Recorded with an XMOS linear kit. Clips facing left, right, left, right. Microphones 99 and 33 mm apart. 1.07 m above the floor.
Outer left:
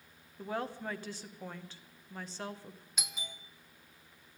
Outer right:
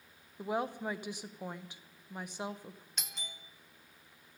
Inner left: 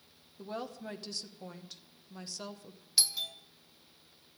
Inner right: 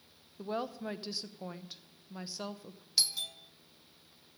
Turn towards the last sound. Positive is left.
turn(degrees=5)  # may be behind; listen again after turning